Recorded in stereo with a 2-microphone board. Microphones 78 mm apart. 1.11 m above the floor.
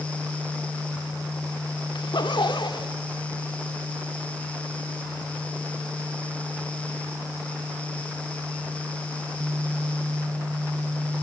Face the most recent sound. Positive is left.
turn(degrees=75)  # may be behind; listen again after turning